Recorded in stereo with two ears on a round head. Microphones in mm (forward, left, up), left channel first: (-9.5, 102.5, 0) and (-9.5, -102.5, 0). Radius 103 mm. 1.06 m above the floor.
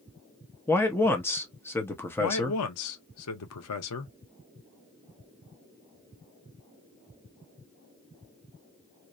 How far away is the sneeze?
No sneeze in this recording.